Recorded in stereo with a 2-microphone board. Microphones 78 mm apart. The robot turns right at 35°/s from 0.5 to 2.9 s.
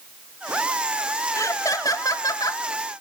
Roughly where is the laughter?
Ahead left.